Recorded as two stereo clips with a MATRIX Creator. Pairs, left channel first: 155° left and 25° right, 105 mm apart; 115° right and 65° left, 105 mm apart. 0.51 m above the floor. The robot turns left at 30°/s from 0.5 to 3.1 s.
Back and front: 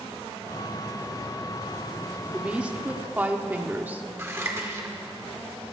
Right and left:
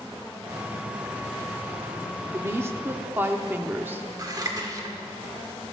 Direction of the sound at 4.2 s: 30° left.